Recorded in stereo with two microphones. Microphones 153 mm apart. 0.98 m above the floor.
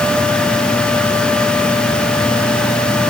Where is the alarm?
I don't hear an alarm.